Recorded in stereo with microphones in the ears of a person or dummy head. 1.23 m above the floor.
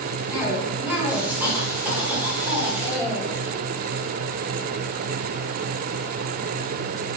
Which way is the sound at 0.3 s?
5° right (ahead or behind).